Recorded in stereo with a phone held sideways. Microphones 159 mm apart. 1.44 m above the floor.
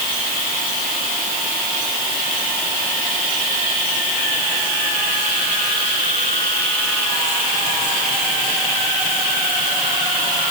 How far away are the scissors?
No scissors in this recording.